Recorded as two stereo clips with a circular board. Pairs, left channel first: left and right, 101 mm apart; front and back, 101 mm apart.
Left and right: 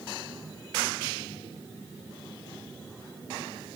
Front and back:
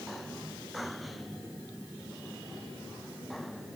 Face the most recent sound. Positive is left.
No sound to turn to.